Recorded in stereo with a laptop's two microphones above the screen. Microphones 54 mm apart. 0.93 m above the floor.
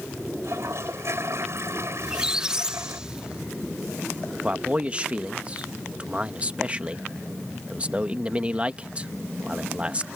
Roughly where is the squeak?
Centre.